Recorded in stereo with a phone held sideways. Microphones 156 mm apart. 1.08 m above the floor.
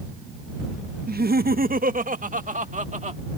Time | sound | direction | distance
1.1 | laughter | 75° right (ahead or behind) | ?